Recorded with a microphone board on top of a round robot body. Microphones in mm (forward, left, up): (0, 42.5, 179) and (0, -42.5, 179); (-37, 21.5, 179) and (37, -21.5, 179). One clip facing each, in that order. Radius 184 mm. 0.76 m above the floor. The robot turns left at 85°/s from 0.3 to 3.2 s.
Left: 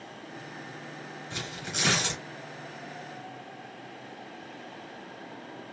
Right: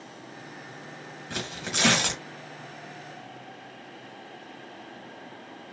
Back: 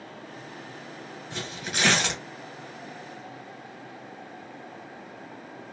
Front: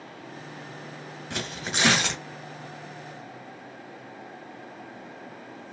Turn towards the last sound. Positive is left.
turn(degrees=145)